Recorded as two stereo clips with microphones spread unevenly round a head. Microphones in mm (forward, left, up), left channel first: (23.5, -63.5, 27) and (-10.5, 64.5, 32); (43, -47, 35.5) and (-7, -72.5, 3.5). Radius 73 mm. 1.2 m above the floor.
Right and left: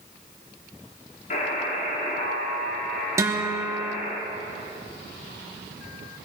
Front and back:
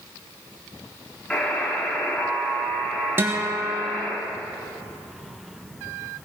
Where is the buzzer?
40° right, 3.5 m.